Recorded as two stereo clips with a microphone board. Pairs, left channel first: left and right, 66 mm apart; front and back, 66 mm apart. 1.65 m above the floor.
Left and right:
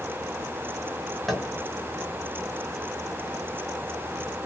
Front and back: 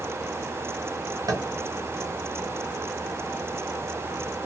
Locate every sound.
1.3 s tapping: straight behind, 0.7 m